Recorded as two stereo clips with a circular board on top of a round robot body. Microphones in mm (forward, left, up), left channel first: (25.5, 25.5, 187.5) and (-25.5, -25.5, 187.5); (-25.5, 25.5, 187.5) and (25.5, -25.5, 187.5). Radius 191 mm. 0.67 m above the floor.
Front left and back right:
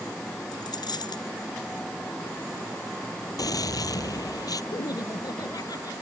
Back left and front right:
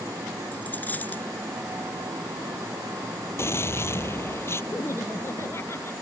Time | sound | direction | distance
0.5 | a dropped coin | 70° left | ?
3.4 | a gunshot | 80° left | ?
4.7 | laughter | 80° left | ?